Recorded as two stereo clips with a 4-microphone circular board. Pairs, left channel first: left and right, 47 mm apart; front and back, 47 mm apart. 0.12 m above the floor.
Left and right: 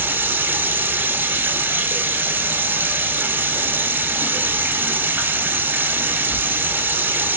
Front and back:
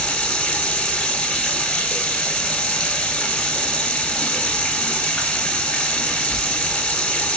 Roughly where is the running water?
Ahead right.